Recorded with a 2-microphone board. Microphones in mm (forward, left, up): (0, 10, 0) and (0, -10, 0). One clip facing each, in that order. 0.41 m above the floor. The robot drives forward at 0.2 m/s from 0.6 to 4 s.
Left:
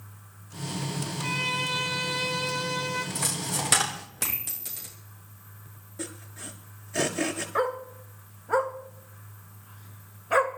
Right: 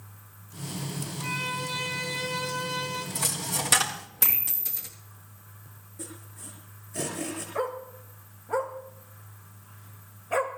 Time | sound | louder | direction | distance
1.2 | a violin | left 3 dB | 35° left (ahead or behind) | 3 m
3.1 | a dropped coin | even | 10° left (ahead or behind) | 3.5 m
6.0 | sawing | left 5 dB | 55° left (ahead or behind) | 6 m
7.5 | a dog barking | left 3 dB | 40° left (ahead or behind) | 2.0 m